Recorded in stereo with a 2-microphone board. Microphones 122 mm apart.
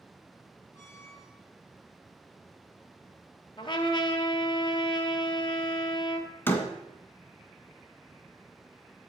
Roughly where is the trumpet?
Left.